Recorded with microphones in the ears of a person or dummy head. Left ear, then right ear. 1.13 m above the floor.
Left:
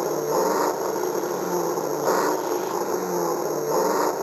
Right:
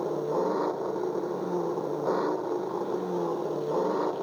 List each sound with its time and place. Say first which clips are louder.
0.0 s an engine running: left 6 dB; 55° left (ahead or behind)